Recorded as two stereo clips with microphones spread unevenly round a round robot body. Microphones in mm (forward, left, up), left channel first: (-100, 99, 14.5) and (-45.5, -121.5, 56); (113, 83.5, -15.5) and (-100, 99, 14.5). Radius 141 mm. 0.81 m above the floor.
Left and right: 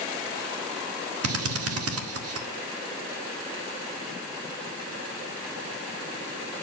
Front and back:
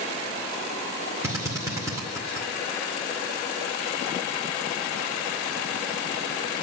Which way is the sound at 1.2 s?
100° right.